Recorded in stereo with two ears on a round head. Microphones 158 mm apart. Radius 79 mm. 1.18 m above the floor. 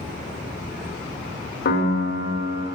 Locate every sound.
1.6 s a piano: 65° left (ahead or behind), 1.9 m